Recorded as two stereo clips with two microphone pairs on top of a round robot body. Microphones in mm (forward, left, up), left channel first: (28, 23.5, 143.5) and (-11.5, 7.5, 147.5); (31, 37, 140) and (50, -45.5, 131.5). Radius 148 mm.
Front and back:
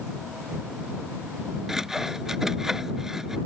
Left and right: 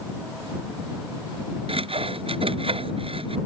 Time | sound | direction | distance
1.7 | sawing | 75° right | ?